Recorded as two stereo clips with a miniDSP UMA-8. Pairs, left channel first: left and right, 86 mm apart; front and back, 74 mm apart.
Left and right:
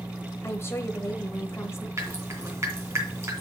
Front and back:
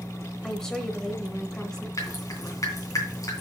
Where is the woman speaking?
75° left, 1.0 m.